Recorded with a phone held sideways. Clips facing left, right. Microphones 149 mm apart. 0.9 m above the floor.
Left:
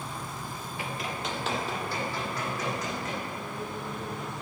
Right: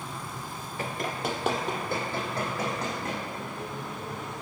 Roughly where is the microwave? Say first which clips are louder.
Even; centre.